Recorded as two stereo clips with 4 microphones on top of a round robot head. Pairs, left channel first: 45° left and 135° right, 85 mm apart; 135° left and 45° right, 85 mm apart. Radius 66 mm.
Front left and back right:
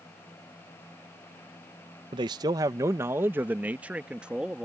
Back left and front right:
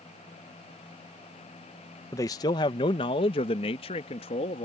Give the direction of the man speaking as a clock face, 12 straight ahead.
6 o'clock.